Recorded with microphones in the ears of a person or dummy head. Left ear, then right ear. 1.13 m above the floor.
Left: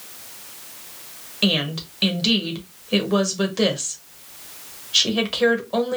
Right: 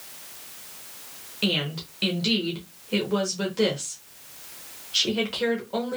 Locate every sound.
1.4 s a woman speaking: 15° left (ahead or behind), 1.1 m